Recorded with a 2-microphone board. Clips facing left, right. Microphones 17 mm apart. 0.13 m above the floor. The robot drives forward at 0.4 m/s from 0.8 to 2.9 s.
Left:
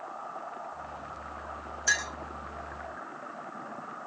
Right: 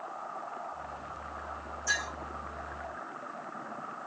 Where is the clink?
60° left (ahead or behind), 5.5 m.